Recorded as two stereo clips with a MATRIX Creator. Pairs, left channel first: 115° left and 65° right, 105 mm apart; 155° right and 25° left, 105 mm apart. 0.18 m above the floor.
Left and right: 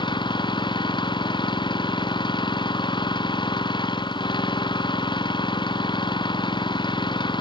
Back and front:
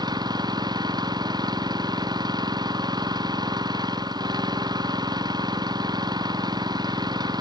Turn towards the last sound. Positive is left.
turn(degrees=70)